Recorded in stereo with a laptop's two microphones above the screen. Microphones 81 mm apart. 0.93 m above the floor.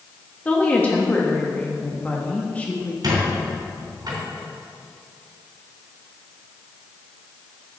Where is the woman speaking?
15° left (ahead or behind), 1.1 m.